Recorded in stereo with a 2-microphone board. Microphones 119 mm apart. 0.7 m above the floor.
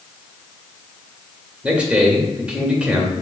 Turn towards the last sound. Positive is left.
turn(degrees=-10)  # may be behind; listen again after turning